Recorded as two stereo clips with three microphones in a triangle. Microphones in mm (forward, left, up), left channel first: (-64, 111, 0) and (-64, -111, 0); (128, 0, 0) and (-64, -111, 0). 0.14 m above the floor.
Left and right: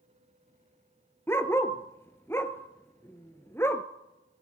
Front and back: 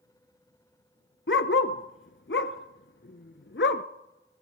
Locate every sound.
1.3 s a dog barking: 15° left, 0.7 m